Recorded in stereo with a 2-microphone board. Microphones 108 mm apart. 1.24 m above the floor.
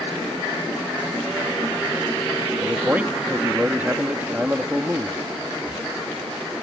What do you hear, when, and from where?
2.6 s a man speaking: 15° right (ahead or behind)